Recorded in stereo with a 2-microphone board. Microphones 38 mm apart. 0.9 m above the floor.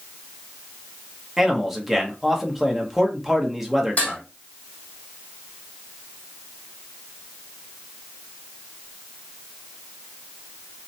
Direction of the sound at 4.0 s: 40° left (ahead or behind).